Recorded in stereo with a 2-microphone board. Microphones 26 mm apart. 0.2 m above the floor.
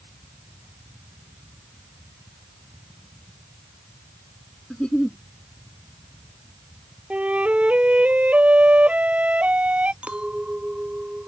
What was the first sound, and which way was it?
A giggle, 35° left (ahead or behind).